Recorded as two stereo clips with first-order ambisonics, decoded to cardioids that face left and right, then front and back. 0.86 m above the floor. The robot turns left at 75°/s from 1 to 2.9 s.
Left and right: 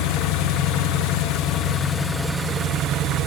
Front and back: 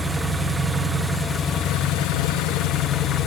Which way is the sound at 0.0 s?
95° left.